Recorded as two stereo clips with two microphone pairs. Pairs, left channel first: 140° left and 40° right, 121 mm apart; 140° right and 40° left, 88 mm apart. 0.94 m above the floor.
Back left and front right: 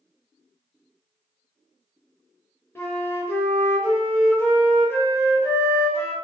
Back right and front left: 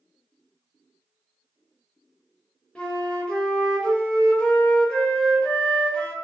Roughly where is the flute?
Behind.